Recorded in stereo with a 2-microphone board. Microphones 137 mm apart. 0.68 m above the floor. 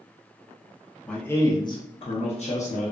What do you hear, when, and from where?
1.1 s a man speaking: 5° left (ahead or behind), 0.7 m; by 2.9 s 60° left (ahead or behind), 1.0 m